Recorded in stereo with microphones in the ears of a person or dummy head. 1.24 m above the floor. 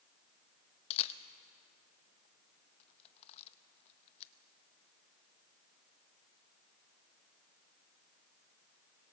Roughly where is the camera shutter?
Left.